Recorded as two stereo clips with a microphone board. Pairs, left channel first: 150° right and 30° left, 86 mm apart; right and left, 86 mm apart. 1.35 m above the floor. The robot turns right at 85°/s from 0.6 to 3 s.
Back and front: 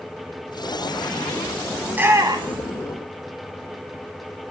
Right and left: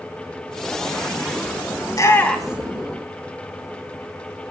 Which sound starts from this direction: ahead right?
A shout, at 1.9 s.